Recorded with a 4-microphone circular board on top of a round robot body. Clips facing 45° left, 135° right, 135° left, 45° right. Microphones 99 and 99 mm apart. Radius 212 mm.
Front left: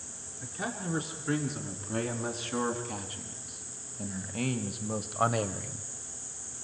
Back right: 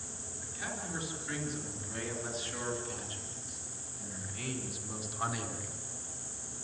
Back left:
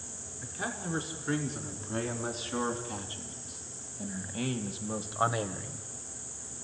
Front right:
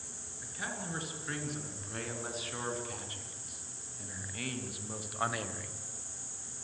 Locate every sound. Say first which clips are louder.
0.4 s a man speaking: front left 6 dB, back left 4 dB; 75° left, 6 m; by 5.9 s 70° left, 1.7 m